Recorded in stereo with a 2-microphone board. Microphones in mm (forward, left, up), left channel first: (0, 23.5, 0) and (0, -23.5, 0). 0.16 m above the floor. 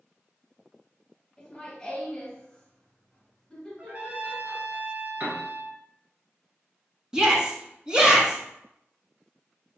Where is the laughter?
15° left (ahead or behind), 1.9 m.